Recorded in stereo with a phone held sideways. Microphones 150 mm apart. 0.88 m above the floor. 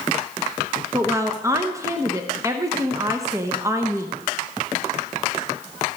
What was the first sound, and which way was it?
A woman speaking, 20° right (ahead or behind).